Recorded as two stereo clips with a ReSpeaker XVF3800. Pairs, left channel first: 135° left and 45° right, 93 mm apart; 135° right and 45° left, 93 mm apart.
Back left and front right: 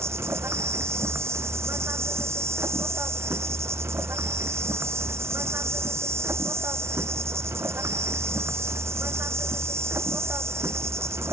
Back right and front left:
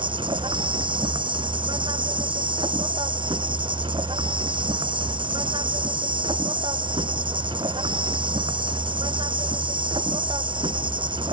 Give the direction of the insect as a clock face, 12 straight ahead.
11 o'clock.